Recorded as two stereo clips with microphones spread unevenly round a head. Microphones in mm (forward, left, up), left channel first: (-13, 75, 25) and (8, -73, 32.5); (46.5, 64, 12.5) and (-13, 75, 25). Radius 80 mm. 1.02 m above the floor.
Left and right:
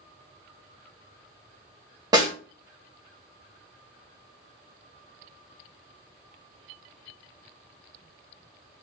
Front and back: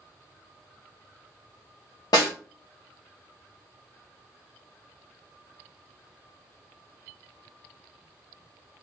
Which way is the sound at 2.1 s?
20° right.